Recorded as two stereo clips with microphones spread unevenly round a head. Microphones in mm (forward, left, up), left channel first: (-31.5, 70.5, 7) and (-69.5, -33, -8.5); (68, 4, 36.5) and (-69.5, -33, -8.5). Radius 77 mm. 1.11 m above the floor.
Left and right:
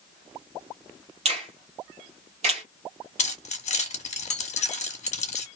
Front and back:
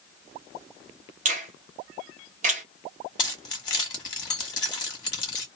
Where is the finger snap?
130° right, 1.3 m.